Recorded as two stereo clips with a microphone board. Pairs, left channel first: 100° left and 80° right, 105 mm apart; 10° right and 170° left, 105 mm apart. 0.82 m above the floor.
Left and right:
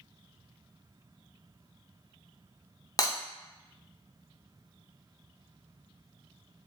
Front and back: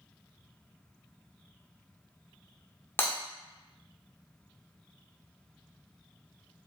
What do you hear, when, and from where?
3.0 s breaking glass: 50° left, 0.5 m